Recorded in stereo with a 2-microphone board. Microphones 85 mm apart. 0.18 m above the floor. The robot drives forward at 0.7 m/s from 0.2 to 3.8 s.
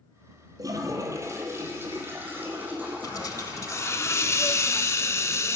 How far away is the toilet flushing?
About 1.2 m.